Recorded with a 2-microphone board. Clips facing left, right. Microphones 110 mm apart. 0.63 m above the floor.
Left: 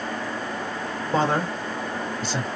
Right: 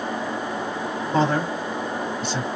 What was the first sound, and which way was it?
A man speaking, 50° left (ahead or behind).